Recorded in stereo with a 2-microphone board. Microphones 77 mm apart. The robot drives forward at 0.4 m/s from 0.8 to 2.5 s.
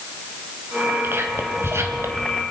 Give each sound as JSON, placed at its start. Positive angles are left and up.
{"t": 1.0, "sound": "whispering", "side_deg": -30, "distance_m": 3.0}